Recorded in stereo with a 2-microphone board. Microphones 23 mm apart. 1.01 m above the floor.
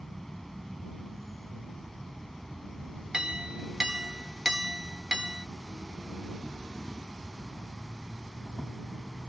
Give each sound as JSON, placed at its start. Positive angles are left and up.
{"t": 0.0, "sound": "an insect", "side_deg": 10}
{"t": 3.1, "sound": "a clink", "side_deg": -35}